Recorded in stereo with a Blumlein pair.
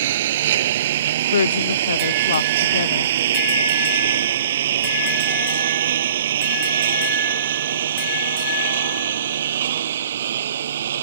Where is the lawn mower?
55° right; by 11.0 s 60° right.